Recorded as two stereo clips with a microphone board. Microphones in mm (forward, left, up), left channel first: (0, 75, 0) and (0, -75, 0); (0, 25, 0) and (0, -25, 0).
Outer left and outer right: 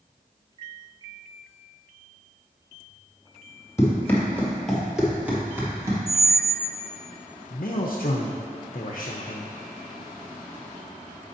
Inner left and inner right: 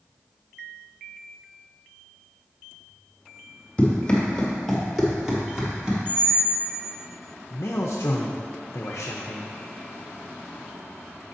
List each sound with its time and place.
3.8 s running footsteps: 20° left (ahead or behind), 1.5 m; by 6.0 s 20° right (ahead or behind), 1.7 m
6.1 s a squeak: 15° left (ahead or behind), 0.5 m
7.5 s a man speaking: 60° left (ahead or behind), 0.5 m